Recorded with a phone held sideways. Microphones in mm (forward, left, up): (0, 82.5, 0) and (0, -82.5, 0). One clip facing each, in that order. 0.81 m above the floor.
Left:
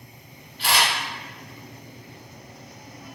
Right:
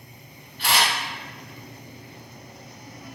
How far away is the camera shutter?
About 1.8 m.